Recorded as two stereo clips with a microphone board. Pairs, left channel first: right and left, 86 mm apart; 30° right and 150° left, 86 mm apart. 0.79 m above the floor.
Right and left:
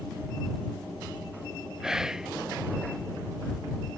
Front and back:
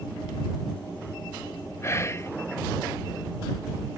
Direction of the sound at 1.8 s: 10° left.